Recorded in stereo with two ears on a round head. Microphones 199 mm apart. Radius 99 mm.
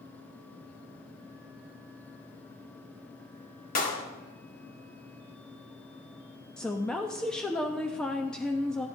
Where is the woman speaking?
5° left (ahead or behind), 0.7 m.